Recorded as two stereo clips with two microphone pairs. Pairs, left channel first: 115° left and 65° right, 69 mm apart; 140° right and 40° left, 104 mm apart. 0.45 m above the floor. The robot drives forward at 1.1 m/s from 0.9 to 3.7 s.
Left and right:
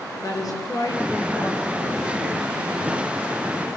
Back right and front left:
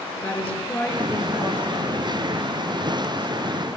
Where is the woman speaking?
145° left, 5.5 m; by 3.7 s 160° left, 8.5 m.